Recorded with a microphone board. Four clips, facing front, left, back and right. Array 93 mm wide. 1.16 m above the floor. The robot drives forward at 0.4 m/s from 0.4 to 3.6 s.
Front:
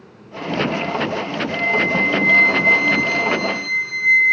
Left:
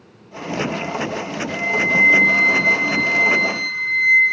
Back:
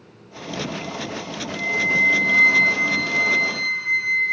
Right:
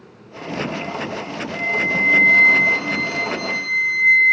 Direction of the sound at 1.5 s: 50° left.